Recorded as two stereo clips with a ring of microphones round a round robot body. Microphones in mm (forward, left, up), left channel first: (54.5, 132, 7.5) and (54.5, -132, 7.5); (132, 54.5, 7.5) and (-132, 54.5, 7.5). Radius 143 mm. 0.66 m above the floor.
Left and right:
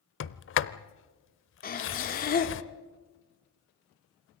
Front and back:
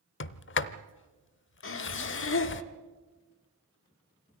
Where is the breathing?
35° left, 1.6 m.